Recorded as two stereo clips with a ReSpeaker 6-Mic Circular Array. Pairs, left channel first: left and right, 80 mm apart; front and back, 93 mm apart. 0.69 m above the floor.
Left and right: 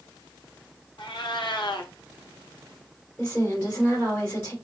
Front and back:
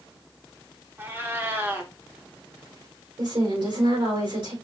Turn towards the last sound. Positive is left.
turn(degrees=155)